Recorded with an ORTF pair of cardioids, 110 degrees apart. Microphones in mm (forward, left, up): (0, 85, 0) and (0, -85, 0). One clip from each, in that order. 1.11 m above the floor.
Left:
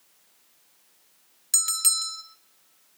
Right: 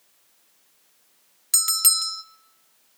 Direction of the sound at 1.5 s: 15° right.